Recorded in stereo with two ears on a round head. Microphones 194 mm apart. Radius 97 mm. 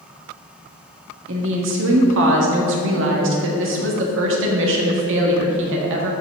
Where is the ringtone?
No ringtone in this recording.